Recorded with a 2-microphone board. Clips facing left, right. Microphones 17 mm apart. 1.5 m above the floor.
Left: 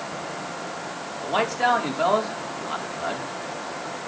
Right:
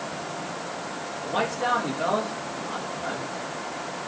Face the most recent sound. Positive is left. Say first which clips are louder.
# left 4 dB
turn(degrees=80)